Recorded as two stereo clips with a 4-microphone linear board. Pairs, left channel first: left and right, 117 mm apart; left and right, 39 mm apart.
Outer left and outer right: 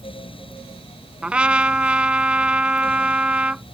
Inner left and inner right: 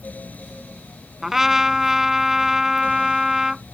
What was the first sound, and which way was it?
A trumpet, 10° right (ahead or behind).